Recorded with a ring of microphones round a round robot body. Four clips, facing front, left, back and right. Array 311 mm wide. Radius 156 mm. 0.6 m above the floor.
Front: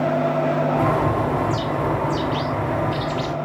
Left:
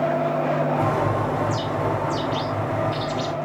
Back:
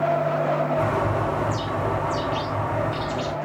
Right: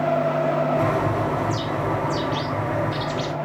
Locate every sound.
0.8 s a bird: 10° right, 1.4 m